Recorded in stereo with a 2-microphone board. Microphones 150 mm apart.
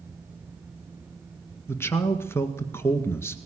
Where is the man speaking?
15° left (ahead or behind), 1.7 m.